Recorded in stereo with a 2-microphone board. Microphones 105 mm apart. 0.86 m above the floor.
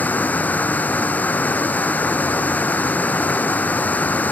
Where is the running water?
15° left (ahead or behind).